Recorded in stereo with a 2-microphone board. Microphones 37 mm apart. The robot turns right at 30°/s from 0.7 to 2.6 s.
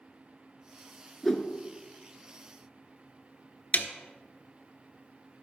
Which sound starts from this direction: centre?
A whoosh, at 1.2 s.